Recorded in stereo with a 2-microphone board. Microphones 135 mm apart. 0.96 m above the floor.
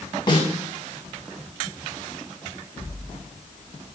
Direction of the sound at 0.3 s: 35° left (ahead or behind).